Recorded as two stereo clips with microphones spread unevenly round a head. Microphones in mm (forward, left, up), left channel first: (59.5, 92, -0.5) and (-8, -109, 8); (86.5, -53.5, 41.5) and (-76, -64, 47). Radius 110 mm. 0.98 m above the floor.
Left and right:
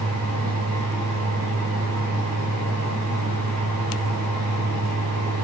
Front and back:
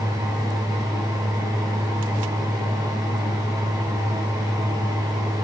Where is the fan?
110° right, 1.6 m.